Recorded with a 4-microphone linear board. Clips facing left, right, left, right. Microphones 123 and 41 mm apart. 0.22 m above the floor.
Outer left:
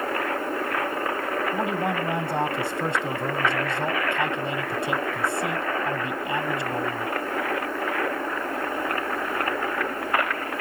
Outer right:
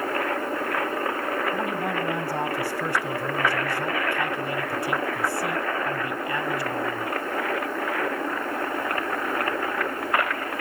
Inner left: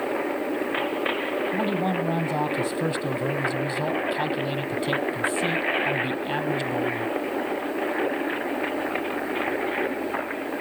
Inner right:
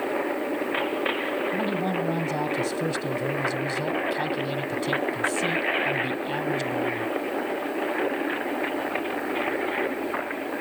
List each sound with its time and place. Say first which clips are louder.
1.5 s a man speaking: outer left 1 dB, inner left 1 dB; 20° left (ahead or behind), 1.5 m